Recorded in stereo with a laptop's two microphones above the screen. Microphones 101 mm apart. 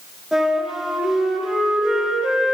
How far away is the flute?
About 3 m.